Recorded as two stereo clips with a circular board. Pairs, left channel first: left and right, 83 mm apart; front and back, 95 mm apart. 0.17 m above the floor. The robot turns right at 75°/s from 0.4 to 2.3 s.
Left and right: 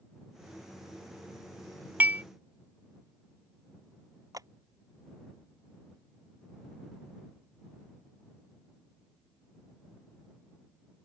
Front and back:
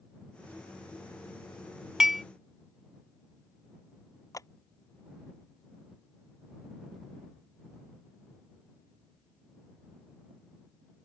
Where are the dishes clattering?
105° right; by 2.2 s 85° right.